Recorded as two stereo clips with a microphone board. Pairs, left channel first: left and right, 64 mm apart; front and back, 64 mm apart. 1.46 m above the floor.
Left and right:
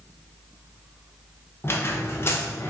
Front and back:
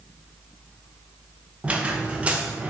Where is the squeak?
120° left, 0.7 m.